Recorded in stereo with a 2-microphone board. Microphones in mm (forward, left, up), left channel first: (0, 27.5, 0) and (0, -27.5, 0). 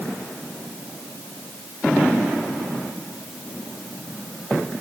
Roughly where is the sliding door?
No sliding door in this recording.